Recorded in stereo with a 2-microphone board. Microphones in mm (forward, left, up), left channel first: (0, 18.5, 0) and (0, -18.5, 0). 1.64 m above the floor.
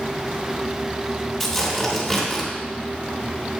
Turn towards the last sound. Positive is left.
turn(degrees=0)  # may be behind; listen again after turning